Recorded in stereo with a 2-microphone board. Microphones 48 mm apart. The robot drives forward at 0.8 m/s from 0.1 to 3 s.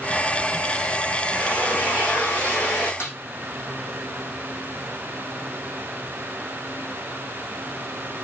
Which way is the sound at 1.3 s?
40° left (ahead or behind).